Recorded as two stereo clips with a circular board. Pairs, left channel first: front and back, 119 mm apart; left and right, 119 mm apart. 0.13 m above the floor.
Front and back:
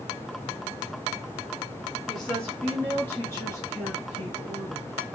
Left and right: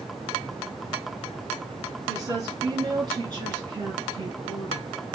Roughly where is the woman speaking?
Right.